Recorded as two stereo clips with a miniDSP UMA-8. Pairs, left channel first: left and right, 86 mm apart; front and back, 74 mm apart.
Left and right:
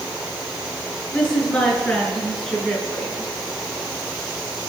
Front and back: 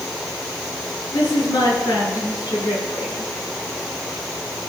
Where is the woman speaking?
10° left, 5.5 m.